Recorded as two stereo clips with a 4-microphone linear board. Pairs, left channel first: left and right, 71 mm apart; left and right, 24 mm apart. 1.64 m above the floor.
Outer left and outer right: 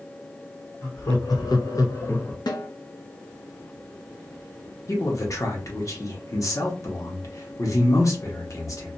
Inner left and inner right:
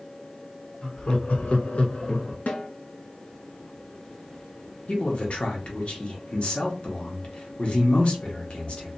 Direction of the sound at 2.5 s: 75° left (ahead or behind).